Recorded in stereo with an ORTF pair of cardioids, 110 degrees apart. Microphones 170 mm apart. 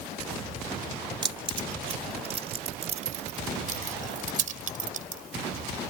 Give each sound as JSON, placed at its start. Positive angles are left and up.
{"t": 1.2, "sound": "keys jangling", "azimuth_deg": -30}